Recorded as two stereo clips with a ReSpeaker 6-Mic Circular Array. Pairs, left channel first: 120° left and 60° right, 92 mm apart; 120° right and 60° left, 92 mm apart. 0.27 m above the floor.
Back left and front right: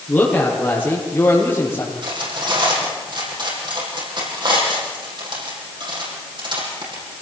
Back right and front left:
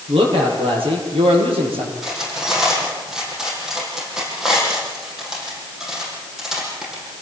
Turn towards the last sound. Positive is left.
turn(degrees=-25)